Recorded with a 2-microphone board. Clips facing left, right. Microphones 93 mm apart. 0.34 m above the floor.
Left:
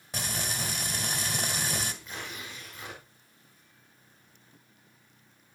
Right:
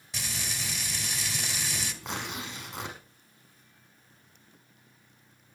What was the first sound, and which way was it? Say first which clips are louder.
Frying: left 4 dB; 50° left (ahead or behind).